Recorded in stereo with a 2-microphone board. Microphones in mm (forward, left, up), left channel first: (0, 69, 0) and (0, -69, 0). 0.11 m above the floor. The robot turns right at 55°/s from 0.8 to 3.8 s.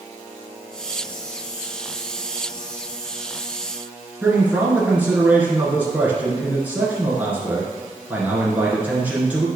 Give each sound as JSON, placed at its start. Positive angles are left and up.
{"t": 4.2, "sound": "a man speaking", "side_deg": -10, "distance_m": 1.6}